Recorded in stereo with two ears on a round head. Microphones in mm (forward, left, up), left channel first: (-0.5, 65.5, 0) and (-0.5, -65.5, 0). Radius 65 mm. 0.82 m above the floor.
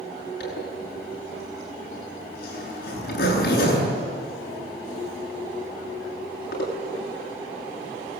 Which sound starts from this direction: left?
A zipper, at 0.4 s.